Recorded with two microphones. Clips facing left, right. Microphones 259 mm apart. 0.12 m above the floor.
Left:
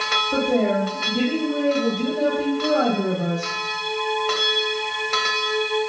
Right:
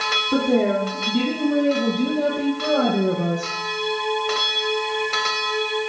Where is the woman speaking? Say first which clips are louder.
Right 2 dB; 70° right (ahead or behind), 5.5 m; by 3.6 s 50° right (ahead or behind), 3.5 m.